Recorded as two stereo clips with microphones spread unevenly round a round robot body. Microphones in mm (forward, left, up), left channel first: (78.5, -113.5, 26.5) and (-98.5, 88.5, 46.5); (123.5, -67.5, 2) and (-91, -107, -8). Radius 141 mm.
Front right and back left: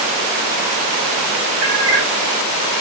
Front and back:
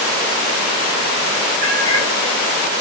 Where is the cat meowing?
125° left, 1.1 m.